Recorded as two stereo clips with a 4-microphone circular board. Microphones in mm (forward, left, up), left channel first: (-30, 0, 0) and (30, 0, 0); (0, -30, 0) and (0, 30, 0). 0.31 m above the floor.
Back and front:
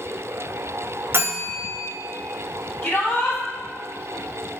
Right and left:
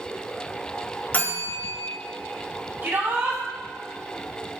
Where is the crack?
I don't hear a crack.